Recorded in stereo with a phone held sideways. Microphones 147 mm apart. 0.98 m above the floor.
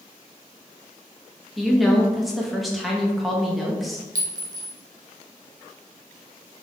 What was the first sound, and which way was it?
A woman speaking, centre (ahead or behind).